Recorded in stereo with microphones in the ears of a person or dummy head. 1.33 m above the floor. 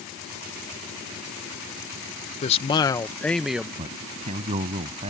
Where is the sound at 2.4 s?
35° left (ahead or behind); by 3.7 s 10° right (ahead or behind).